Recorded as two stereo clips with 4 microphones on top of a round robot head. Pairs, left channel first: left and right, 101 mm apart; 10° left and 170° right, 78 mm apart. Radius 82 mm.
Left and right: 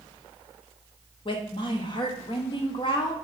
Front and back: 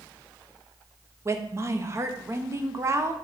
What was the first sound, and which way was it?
A woman speaking, 135° left.